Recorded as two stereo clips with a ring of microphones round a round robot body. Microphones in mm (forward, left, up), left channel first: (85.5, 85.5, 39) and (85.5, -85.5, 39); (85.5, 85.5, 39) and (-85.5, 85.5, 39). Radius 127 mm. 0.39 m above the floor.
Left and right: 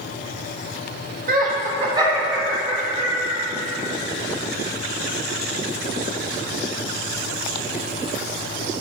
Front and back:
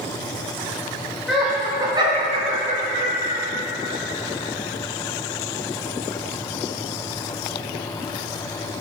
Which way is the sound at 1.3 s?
90° right.